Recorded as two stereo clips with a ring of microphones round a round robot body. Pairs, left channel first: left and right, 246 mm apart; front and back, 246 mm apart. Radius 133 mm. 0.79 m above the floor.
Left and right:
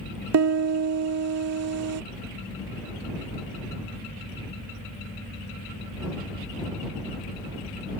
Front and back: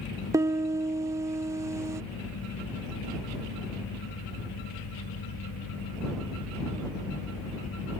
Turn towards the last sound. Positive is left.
turn(degrees=-100)